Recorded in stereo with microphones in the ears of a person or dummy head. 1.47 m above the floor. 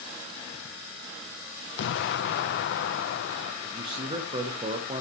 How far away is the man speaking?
About 1.0 m.